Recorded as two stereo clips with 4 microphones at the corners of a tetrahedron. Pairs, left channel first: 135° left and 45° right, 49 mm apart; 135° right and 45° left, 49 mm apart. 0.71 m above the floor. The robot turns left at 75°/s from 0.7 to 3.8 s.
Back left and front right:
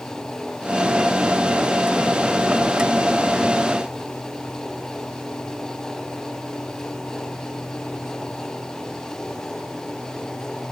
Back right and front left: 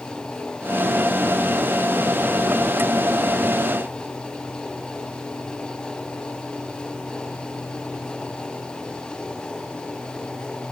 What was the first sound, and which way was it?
Only background noise.